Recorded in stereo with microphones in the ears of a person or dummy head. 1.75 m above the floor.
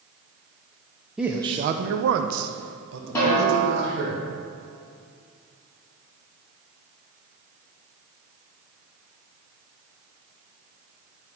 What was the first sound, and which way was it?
A man speaking, 5° right (ahead or behind).